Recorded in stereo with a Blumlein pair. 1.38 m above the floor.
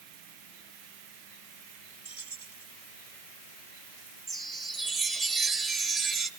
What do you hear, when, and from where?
2.0 s keys jangling: 60° right, 1.2 m
4.3 s a chime: 30° right, 1.3 m